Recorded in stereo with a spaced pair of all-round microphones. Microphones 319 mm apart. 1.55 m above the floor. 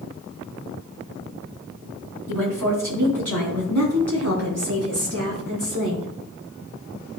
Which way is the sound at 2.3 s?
75° right (ahead or behind).